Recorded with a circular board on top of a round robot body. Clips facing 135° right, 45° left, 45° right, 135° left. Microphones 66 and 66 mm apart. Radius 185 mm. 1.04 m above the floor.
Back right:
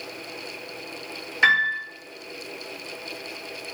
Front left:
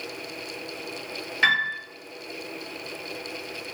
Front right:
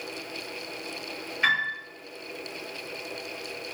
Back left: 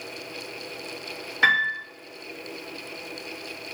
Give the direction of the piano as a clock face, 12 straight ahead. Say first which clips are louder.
Back right 3 dB, back left 5 dB; 7 o'clock.